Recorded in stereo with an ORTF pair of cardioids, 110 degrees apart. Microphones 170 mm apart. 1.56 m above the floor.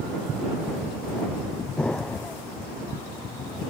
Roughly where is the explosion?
Ahead.